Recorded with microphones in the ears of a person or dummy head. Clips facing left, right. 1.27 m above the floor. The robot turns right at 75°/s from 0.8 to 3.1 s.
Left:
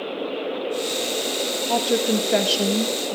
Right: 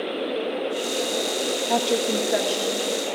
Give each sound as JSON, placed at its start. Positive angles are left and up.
{"t": 1.7, "sound": "a woman speaking", "azimuth_deg": -10, "distance_m": 2.0}